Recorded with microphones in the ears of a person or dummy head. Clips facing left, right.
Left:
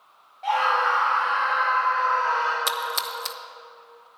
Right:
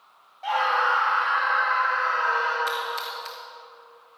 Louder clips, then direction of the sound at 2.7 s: Even; 55° left (ahead or behind).